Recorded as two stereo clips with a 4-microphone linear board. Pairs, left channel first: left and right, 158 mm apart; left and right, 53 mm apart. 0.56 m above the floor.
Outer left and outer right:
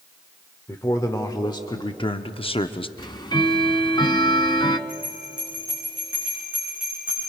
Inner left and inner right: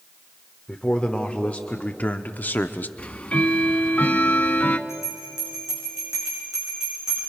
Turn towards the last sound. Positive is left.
turn(degrees=-10)  # may be behind; listen again after turning